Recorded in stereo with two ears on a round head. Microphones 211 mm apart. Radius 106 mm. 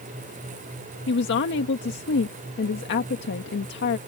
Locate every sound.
1.1 s a woman speaking: 50° left (ahead or behind)